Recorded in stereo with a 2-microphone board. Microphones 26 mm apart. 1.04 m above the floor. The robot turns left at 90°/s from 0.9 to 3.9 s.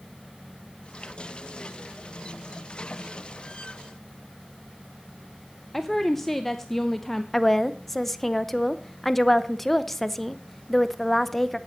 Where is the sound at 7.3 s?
5° left (ahead or behind), 0.7 m.